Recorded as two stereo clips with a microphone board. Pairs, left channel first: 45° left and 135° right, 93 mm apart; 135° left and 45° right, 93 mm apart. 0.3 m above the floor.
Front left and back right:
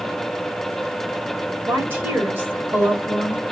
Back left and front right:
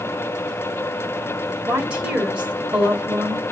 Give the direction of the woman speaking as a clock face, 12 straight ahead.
3 o'clock.